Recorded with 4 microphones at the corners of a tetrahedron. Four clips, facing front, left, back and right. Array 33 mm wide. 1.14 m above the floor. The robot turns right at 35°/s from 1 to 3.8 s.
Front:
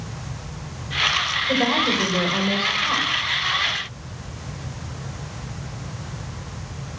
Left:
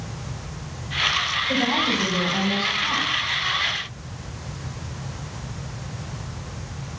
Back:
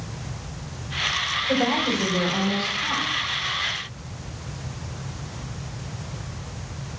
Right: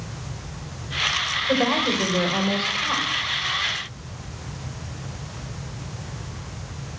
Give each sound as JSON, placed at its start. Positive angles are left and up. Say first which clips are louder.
{"t": 1.5, "sound": "a woman speaking", "louder": "right 2 dB, front 2 dB", "azimuth_deg": -85, "distance_m": 5.5}